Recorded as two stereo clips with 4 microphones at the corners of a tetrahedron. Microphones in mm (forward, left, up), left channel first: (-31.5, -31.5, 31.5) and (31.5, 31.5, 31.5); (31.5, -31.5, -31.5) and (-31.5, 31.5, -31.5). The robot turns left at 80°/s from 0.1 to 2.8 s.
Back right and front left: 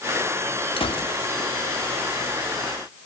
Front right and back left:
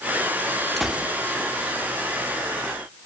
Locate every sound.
0.8 s a gunshot: 130° right, 2 m; by 1.1 s 160° right, 2 m